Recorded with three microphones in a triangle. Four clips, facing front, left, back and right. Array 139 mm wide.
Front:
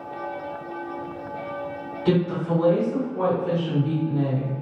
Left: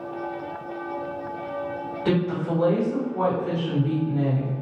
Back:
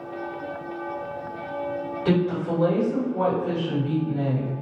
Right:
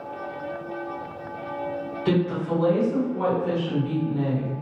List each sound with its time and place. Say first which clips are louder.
2.0 s a woman speaking: even, front 1 dB; 115° left, 1.5 m; by 4.5 s 50° right, 1.2 m